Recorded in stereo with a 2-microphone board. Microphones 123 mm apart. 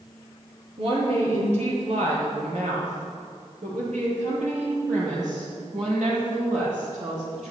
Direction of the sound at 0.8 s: 55° right (ahead or behind).